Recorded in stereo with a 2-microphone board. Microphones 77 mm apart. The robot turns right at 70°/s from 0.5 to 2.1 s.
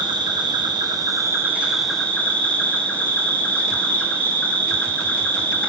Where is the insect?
95° right, 0.9 m; by 5.7 s 15° left, 0.9 m.